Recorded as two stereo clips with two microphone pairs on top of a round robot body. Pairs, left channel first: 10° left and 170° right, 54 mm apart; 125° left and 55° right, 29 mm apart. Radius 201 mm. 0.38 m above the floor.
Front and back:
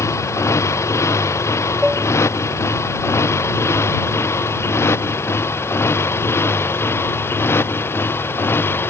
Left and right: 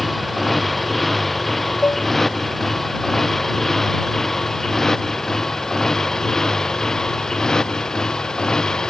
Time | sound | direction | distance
0.0 | a motorcycle | 35° left | ?
1.8 | dishes clattering | 110° left | ?